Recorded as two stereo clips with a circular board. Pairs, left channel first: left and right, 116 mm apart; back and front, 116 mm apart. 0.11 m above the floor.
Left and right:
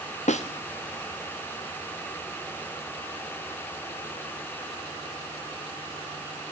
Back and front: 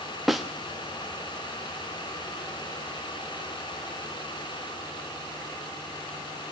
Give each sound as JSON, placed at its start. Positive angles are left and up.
{"t": 0.3, "sound": "a snare drum", "azimuth_deg": 90, "distance_m": 2.0}